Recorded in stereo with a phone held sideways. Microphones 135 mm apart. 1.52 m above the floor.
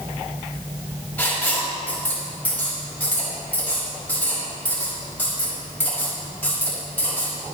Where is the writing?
10° left (ahead or behind), 6.5 m.